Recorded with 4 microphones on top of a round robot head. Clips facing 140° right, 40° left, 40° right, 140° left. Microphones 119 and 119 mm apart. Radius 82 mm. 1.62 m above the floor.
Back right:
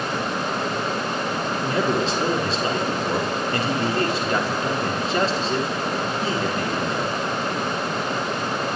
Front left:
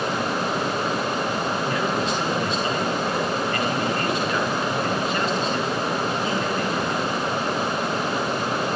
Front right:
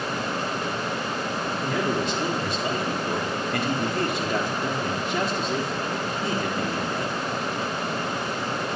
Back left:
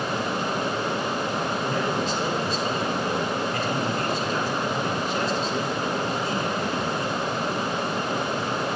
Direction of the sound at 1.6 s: 80° right.